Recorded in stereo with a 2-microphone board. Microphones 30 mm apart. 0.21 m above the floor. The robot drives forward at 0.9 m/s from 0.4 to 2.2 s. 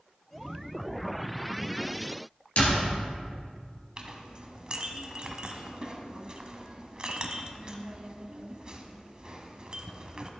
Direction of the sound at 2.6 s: 50° left (ahead or behind).